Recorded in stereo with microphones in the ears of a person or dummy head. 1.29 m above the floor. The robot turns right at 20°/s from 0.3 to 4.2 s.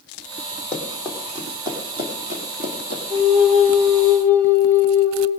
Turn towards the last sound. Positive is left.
turn(degrees=15)  # may be behind; listen again after turning